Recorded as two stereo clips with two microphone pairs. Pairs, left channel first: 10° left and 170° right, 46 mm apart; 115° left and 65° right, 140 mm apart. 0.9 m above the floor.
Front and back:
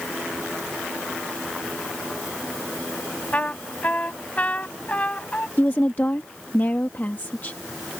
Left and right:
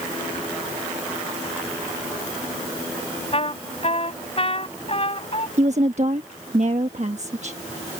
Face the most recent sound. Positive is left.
turn(degrees=-35)